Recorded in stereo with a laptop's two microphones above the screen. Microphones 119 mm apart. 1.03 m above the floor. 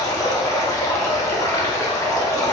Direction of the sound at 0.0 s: 30° left (ahead or behind).